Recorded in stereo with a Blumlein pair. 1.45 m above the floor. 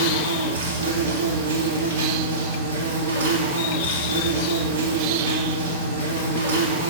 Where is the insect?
60° right, 0.7 m.